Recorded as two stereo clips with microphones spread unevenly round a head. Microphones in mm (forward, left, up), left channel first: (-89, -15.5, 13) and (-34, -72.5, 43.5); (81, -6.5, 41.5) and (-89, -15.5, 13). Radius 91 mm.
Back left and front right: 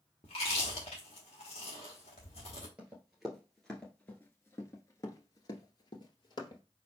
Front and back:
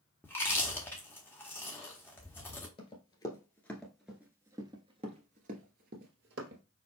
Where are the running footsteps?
15° right, 1.4 m; by 6.6 s 165° left, 1.7 m.